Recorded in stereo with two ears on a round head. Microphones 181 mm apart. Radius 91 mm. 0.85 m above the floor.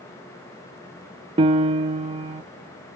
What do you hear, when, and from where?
1.4 s a piano: 30° right (ahead or behind), 0.6 m